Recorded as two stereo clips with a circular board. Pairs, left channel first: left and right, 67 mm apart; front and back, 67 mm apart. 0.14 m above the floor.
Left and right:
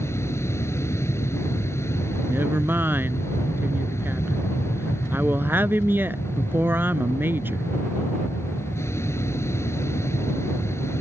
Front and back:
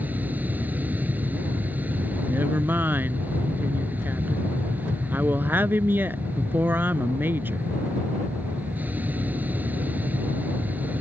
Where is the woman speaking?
130° right.